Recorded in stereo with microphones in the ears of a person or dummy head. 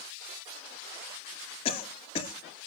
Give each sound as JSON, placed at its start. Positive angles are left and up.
{"t": 1.6, "sound": "a cough", "side_deg": 35, "distance_m": 2.0}